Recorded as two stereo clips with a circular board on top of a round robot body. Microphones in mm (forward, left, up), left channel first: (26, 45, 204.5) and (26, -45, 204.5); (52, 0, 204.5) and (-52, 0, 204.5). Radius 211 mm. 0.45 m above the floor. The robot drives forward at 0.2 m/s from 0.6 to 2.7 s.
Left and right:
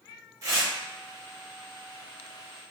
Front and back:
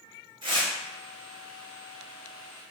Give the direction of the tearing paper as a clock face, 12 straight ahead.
5 o'clock.